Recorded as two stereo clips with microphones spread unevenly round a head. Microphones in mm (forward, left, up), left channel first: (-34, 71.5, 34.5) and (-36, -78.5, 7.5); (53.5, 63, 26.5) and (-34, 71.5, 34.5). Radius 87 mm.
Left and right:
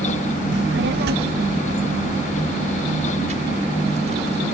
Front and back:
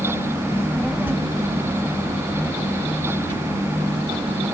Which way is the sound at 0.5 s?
80° right.